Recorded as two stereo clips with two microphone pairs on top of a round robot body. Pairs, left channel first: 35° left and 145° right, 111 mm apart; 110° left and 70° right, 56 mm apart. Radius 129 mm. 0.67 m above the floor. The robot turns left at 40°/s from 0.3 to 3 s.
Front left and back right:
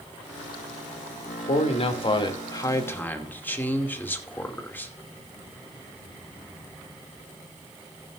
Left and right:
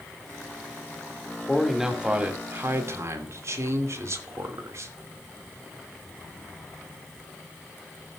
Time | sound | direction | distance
1.5 | a man speaking | 25° left | 2.5 m